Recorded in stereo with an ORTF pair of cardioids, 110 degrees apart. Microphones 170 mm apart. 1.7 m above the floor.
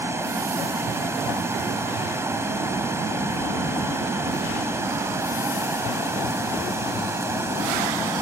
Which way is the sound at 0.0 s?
15° right.